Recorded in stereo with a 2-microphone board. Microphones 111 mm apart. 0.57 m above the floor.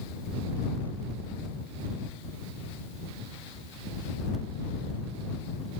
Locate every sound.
Only background noise.